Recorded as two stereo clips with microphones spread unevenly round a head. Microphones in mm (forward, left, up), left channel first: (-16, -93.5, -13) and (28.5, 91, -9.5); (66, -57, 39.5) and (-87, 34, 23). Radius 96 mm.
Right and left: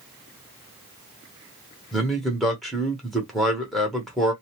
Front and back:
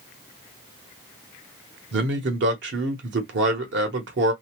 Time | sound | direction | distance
1.9 | a man speaking | 165° left | 1.1 m